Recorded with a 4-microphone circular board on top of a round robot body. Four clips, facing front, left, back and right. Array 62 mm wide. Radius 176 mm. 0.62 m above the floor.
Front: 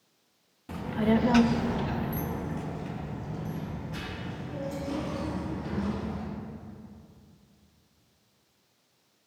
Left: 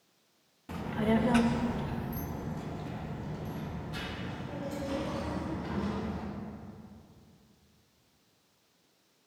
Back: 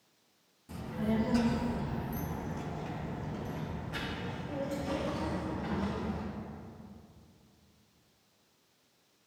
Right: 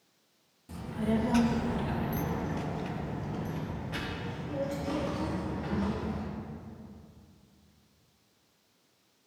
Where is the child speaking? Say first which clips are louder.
Left 2 dB, front 8 dB; 45° left, 0.8 m; by 6.2 s 105° right, 2.5 m.